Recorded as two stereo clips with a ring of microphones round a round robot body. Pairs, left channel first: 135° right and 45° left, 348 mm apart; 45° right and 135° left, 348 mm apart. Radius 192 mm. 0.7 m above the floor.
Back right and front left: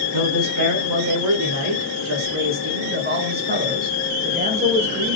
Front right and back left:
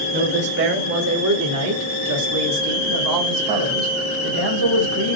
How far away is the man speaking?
About 2.5 m.